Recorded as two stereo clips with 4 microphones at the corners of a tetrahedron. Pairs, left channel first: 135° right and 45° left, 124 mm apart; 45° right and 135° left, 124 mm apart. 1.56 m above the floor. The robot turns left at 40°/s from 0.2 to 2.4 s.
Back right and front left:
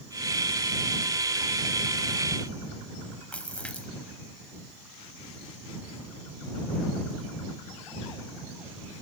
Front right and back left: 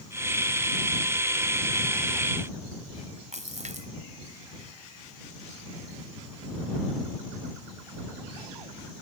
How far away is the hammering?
No hammering in this recording.